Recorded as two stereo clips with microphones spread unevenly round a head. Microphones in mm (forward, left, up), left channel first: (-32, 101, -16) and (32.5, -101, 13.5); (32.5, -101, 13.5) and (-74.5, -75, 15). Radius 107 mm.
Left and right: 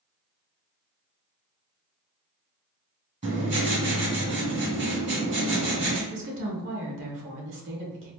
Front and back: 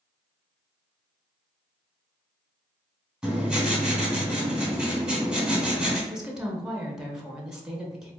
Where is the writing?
110° right, 1.9 m.